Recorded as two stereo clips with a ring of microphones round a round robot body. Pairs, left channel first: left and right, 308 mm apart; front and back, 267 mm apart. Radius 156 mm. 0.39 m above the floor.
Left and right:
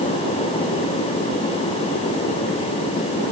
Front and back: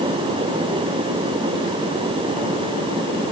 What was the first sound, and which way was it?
Only background noise.